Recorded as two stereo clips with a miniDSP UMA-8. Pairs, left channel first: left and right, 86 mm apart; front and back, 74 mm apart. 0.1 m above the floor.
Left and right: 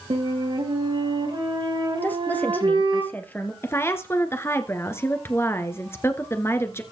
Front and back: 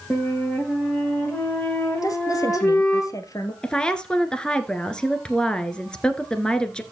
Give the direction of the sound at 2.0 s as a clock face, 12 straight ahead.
11 o'clock.